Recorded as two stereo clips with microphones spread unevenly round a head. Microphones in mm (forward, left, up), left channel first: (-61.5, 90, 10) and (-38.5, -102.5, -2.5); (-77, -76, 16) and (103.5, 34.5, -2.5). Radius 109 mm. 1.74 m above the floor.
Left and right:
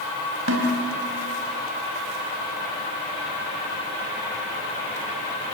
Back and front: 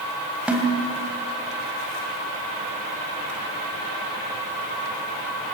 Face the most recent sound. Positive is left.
turn(degrees=-55)